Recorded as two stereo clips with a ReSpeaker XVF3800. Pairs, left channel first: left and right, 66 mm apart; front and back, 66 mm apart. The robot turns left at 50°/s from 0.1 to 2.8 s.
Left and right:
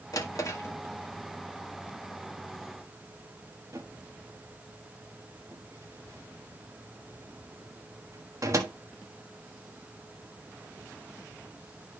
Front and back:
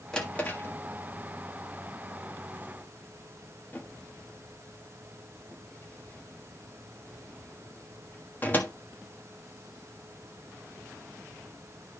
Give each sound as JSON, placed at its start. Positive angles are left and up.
{"t": 0.1, "sound": "a drawer", "azimuth_deg": 75, "distance_m": 1.4}